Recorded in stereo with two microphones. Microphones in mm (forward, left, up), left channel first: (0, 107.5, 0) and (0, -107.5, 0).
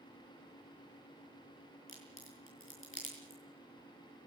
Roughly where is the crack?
Left.